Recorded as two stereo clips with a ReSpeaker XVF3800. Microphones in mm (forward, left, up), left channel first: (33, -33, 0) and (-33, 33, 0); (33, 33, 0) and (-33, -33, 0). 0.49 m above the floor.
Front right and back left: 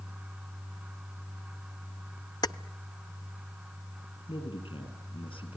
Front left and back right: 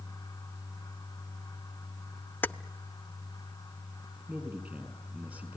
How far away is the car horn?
No car horn in this recording.